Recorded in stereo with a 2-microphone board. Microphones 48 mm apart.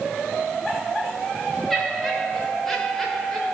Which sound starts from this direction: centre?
Laughter, at 1.7 s.